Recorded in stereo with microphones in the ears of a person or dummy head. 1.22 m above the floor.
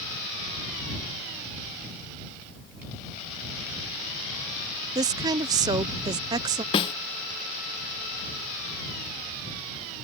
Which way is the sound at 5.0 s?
20° right (ahead or behind).